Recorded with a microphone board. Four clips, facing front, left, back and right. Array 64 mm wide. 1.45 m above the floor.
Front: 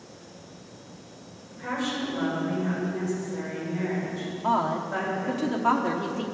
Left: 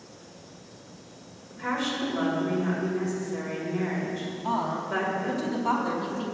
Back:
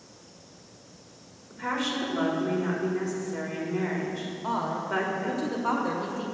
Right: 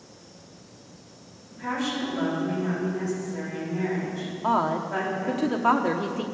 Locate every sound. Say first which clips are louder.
1.5 s a woman speaking: even, back 1 dB; 165° left, 4.5 m
4.4 s a woman speaking: right 5 dB, front 5 dB; 75° right, 0.9 m